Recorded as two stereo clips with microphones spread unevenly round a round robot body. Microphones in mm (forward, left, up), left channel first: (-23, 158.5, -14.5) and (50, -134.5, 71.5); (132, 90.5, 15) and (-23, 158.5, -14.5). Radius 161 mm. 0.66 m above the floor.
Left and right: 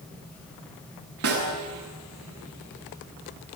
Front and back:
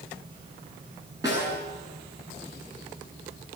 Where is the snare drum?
125° right, 8.5 m.